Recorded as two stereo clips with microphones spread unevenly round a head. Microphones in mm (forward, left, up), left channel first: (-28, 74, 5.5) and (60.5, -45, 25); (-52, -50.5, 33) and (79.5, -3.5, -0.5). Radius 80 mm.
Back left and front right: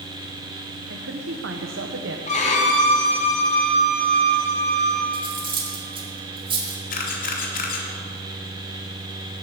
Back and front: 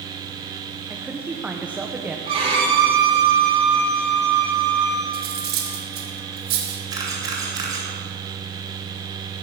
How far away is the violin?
About 2.5 m.